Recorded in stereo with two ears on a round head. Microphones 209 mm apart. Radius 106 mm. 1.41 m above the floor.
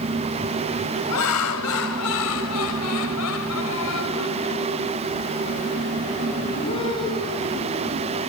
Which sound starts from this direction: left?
Laughter, at 1.1 s.